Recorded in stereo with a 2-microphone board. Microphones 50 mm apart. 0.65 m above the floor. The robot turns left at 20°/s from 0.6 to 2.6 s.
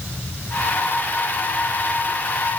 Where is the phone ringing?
No phone ringing in this recording.